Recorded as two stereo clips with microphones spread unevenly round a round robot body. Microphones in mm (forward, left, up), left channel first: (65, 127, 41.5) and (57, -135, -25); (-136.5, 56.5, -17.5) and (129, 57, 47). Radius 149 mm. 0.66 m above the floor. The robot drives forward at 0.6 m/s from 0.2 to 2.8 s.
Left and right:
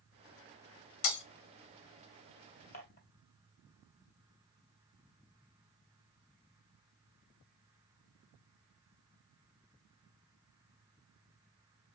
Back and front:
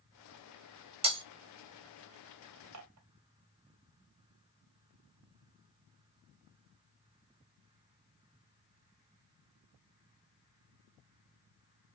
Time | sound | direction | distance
1.0 | breaking glass | 70° left | 1.5 m
2.7 | dishes clattering | 30° left | 1.8 m